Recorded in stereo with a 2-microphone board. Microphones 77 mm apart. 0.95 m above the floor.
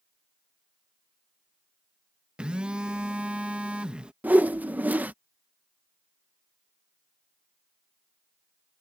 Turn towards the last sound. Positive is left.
turn(degrees=-20)  # may be behind; listen again after turning